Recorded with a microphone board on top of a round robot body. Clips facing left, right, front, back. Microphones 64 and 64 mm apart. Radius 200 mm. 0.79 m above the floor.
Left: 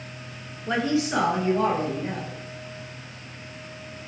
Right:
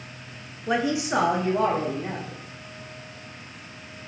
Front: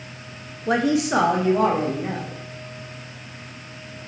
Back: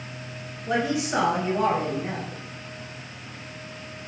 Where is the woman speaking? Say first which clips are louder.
Even, front 5 dB; 10° right, 0.7 m; by 2.4 s 30° right, 1.6 m.